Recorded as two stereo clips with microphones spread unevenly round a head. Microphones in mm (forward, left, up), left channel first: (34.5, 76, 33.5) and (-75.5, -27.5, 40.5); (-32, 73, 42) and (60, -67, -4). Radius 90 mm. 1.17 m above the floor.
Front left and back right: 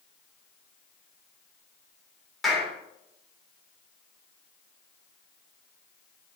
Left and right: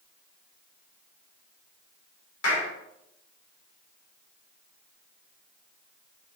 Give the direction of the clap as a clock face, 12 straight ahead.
8 o'clock.